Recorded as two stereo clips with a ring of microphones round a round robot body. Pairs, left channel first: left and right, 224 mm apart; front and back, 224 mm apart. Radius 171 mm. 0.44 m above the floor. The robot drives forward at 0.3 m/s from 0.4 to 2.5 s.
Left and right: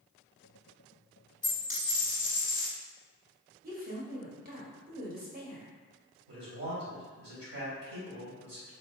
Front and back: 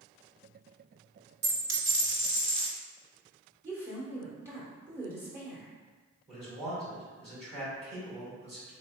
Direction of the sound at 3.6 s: 105° right.